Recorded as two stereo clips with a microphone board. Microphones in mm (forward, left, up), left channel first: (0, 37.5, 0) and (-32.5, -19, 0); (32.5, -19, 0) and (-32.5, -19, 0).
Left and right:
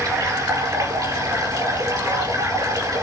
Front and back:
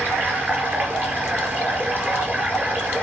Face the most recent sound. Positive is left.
turn(degrees=-120)